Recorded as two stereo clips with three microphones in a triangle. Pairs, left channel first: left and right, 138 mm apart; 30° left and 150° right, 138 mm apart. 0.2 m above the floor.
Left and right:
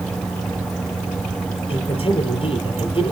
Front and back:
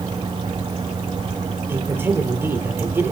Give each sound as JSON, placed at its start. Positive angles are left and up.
{"t": 1.7, "sound": "a man speaking", "azimuth_deg": 135, "distance_m": 4.5}